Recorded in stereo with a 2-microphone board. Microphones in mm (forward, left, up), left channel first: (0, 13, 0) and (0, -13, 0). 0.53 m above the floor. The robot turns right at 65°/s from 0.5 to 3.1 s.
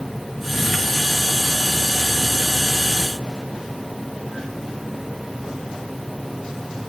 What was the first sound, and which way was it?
Only background noise.